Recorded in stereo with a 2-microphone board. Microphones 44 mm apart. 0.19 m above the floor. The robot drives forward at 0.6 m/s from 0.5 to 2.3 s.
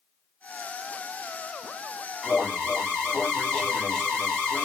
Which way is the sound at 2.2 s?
15° left (ahead or behind).